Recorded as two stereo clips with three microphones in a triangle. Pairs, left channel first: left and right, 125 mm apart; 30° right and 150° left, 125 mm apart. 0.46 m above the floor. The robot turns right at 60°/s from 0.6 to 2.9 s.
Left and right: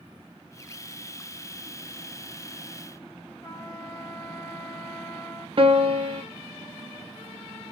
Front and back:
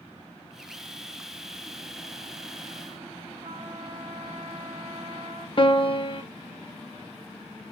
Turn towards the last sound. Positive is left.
turn(degrees=-65)